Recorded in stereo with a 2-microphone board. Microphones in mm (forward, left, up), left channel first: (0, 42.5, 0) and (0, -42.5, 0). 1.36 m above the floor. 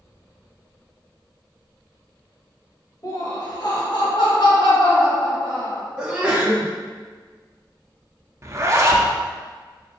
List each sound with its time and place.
3.0 s laughter: 45° left (ahead or behind), 1.6 m; by 5.8 s 75° left (ahead or behind), 1.6 m
6.0 s a sneeze: 10° right (ahead or behind), 1.7 m
8.4 s a zipper: 35° right (ahead or behind), 0.5 m